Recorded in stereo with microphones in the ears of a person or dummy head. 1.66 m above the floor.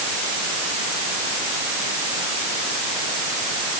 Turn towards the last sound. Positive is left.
No sound to turn to.